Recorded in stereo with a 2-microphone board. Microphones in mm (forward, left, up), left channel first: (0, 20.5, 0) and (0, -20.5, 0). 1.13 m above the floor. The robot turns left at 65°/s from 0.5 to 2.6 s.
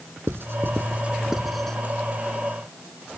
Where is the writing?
65° right (ahead or behind); by 1.8 s 20° left (ahead or behind).